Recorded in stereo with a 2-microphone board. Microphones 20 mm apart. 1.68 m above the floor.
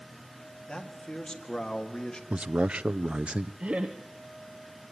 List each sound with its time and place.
0.7 s a man speaking: 35° left (ahead or behind), 4.5 m; by 2.2 s 30° left (ahead or behind), 3 m
2.3 s a man speaking: 70° right (ahead or behind), 0.7 m
3.6 s laughter: 70° right (ahead or behind), 1.4 m